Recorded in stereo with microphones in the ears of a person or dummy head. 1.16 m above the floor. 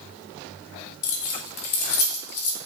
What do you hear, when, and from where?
1.0 s keys jangling: 70° left (ahead or behind), 0.7 m